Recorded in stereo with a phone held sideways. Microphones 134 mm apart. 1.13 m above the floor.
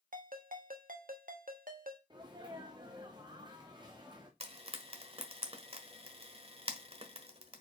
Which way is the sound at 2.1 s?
30° right (ahead or behind).